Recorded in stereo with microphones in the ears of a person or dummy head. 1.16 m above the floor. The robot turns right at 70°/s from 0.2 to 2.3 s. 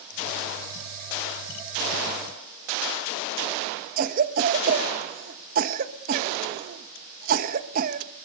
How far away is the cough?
About 1.3 m.